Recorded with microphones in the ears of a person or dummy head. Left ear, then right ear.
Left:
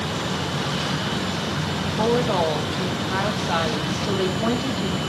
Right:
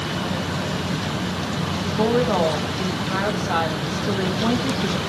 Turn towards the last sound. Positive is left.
turn(degrees=5)  # may be behind; listen again after turning